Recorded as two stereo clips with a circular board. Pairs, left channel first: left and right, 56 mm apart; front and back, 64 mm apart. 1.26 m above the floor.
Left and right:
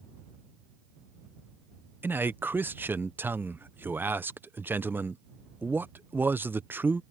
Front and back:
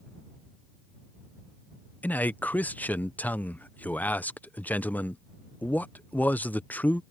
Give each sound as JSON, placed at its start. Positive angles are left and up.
{"t": 2.0, "sound": "a man speaking", "azimuth_deg": -55}